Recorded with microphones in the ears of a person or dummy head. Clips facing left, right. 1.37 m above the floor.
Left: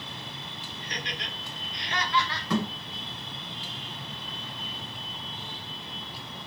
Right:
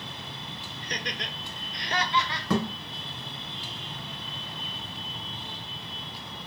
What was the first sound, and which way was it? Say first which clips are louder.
Laughter: right 3 dB; 40° right (ahead or behind).